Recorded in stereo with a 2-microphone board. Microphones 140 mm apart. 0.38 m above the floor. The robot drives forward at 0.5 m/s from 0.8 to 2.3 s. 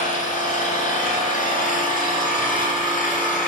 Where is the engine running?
70° left (ahead or behind), 1.5 m; by 3.5 s 80° left, 1.5 m.